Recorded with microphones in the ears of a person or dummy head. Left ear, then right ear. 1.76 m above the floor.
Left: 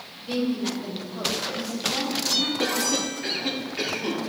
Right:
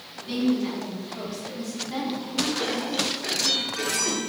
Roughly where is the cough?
Left.